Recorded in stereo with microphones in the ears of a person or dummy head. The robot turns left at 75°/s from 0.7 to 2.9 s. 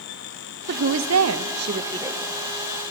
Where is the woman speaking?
60° right, 0.7 m; by 2.2 s 170° right, 0.7 m.